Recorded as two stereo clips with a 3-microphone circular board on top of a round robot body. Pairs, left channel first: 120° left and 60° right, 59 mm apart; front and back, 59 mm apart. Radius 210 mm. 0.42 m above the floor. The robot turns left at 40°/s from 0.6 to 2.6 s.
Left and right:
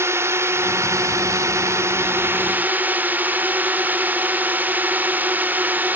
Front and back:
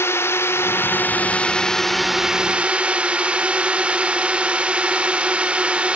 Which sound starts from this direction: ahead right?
A drone, at 0.0 s.